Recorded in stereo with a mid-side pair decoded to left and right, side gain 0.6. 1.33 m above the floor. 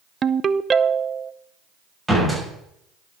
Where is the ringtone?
30° right, 0.5 m.